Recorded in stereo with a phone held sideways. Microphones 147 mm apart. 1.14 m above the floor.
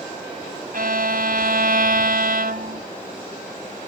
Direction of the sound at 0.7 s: 80° right.